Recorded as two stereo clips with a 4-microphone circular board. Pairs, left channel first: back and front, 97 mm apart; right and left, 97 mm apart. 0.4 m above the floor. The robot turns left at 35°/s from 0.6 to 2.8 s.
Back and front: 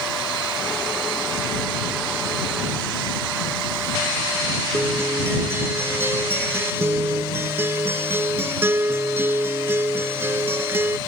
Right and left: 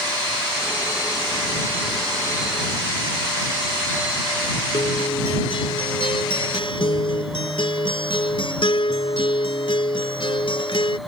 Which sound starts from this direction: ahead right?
A guitar, at 4.7 s.